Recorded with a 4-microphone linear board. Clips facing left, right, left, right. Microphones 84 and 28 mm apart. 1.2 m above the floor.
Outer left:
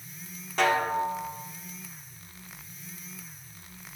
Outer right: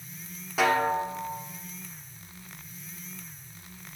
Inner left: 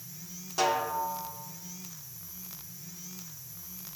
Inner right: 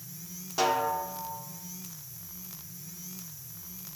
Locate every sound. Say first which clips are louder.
0.6 s a snare drum: outer right 1 dB, inner right 1 dB; 5° right (ahead or behind), 0.8 m